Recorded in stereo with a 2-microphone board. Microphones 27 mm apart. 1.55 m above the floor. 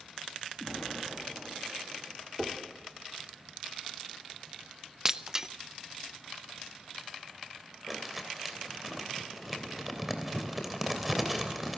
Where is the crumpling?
5° right (ahead or behind), 3 m.